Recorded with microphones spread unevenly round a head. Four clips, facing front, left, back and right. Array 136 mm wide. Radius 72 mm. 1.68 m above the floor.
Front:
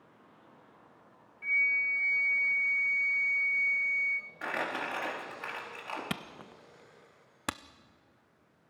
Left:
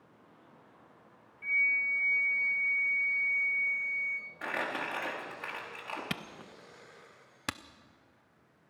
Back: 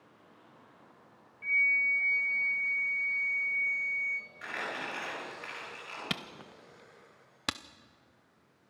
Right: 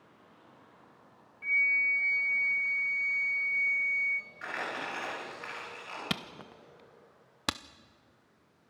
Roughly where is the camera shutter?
Ahead right.